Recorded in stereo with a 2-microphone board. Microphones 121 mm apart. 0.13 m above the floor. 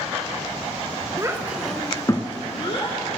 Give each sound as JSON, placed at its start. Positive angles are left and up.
{"t": 1.2, "sound": "a child speaking", "side_deg": -25, "distance_m": 0.9}